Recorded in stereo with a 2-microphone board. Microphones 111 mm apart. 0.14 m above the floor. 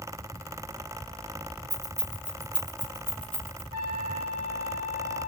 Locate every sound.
1.7 s keys jangling: 30° right (ahead or behind), 2.5 m; by 3.6 s 45° right (ahead or behind), 3 m
3.7 s a trumpet: 60° right (ahead or behind), 4.5 m